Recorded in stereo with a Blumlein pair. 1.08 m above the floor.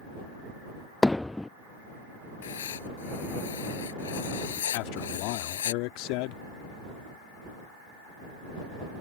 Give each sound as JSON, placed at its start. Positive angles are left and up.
{"t": 1.0, "sound": "hammering", "azimuth_deg": 5}
{"t": 2.4, "sound": "writing", "azimuth_deg": 65}
{"t": 4.7, "sound": "a man speaking", "azimuth_deg": 45}